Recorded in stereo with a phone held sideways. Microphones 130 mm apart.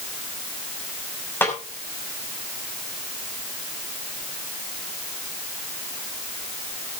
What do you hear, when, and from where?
1.4 s a snare drum: 15° left (ahead or behind), 5.5 m